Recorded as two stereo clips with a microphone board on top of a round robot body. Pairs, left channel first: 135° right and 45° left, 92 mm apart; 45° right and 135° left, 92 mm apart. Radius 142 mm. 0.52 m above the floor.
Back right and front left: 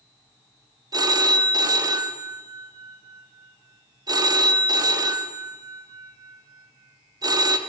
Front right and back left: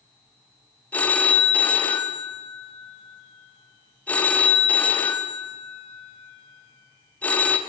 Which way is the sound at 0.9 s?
25° left.